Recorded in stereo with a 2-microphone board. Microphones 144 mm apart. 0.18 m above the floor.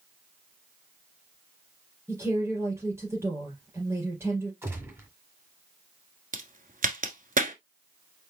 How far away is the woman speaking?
About 3 m.